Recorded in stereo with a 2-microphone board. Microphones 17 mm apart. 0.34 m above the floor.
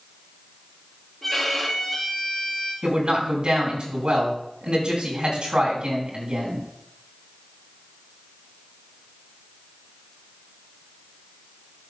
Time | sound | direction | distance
1.2 | a violin | 5° left (ahead or behind) | 3.5 m
2.8 | a man speaking | 65° right (ahead or behind) | 4 m